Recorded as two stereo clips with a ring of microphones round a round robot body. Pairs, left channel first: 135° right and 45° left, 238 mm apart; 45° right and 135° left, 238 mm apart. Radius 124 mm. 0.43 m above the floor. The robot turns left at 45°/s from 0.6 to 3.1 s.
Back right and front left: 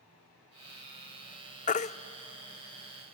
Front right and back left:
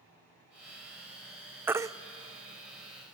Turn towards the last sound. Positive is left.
turn(degrees=145)